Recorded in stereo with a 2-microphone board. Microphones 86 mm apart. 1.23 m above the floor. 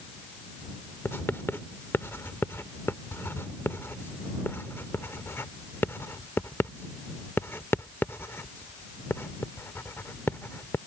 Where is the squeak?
No squeak in this recording.